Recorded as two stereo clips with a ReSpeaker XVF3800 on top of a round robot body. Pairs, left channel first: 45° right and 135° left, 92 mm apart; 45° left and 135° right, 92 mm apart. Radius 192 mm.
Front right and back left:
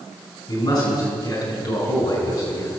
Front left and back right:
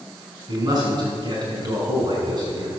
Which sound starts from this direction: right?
A man speaking, at 0.5 s.